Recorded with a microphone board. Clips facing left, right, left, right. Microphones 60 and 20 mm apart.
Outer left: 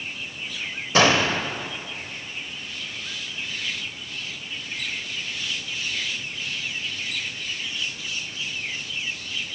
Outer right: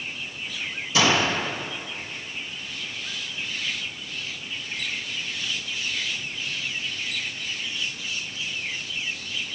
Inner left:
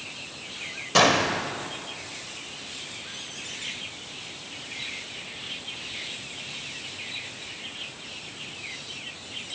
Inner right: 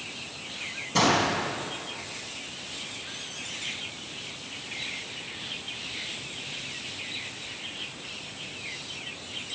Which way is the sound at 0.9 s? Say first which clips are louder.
Outer left 3 dB, inner left 3 dB; 45° left (ahead or behind).